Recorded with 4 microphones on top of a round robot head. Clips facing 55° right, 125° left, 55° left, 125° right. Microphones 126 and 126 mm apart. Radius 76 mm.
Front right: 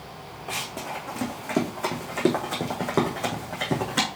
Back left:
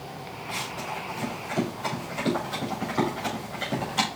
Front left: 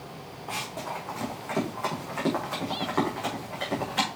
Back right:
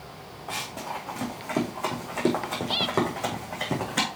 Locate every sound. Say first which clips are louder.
0.5 s running footsteps: front right 1 dB, even; 45° right, 3.5 m; by 4.1 s 85° right, 3.5 m